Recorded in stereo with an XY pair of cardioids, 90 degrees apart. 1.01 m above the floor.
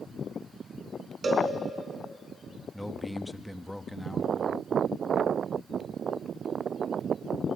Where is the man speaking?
10° left, 1.0 m.